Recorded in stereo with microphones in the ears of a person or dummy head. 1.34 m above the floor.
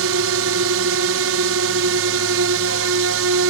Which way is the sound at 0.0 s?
70° right (ahead or behind).